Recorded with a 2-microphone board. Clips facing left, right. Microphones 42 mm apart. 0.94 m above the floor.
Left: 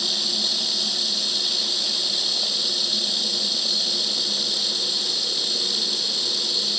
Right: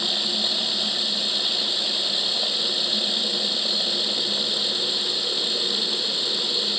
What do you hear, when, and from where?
0.0 s running water: 25° right (ahead or behind)